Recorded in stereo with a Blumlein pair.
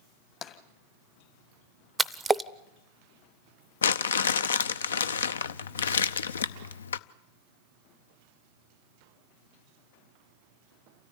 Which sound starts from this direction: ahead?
A splash, at 2.0 s.